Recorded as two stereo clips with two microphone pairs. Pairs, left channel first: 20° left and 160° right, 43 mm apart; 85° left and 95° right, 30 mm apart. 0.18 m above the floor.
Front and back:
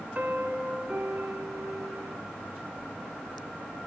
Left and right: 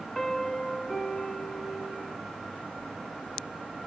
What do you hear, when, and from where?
0.1 s a piano: 160° left, 0.9 m